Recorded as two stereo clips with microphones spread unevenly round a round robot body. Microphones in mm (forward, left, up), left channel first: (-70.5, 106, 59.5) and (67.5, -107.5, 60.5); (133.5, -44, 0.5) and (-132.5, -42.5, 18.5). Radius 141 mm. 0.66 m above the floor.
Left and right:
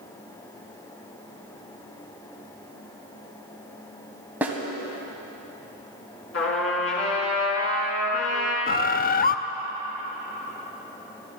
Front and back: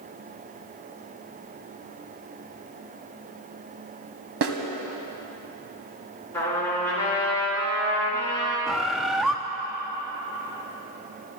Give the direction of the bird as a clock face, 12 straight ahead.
9 o'clock.